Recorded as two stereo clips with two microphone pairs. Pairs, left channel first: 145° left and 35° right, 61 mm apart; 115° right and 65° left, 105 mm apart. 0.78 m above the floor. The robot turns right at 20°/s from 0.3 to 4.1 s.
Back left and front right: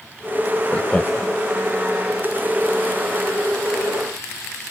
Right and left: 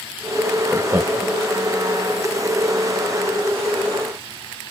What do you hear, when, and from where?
0.7 s laughter: 105° left, 0.7 m; by 1.4 s 120° left, 0.7 m